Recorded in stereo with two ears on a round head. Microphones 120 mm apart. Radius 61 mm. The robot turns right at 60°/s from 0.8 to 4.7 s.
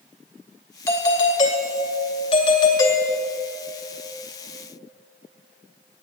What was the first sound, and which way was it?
A doorbell, 20° left.